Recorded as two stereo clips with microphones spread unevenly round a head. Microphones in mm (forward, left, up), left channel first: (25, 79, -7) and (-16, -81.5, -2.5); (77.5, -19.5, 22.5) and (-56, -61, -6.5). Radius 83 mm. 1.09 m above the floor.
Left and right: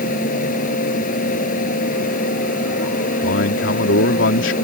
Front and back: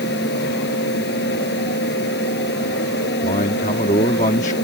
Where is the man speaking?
70° left.